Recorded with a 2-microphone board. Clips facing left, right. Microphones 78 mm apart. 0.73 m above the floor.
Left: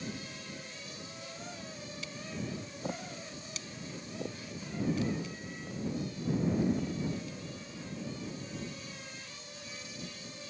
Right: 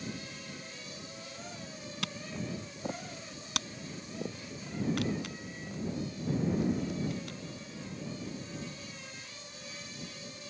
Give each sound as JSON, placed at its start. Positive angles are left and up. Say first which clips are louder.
{"t": 2.0, "sound": "a camera shutter", "louder": "right 2 dB", "side_deg": -80}